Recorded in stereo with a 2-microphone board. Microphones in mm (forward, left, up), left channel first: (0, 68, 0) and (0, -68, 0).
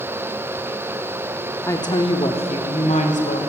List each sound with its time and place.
1.7 s a woman speaking: 20° left (ahead or behind), 0.7 m; by 3.4 s 65° left (ahead or behind), 1.5 m